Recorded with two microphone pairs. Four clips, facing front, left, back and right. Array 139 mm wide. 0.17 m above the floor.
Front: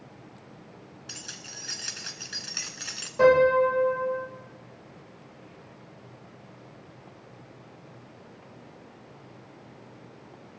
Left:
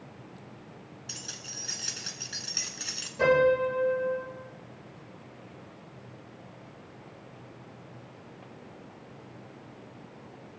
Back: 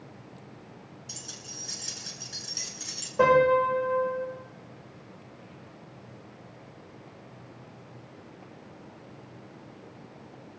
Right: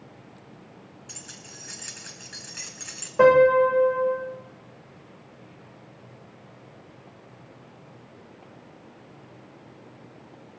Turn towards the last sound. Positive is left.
turn(degrees=-105)